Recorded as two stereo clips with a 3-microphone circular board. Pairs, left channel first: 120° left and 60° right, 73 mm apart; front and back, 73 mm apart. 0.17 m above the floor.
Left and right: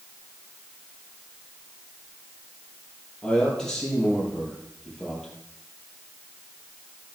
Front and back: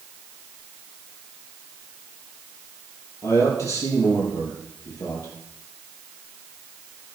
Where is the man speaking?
40° left, 5.5 m.